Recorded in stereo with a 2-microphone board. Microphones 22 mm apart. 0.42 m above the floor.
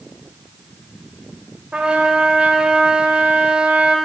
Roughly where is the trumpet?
Right.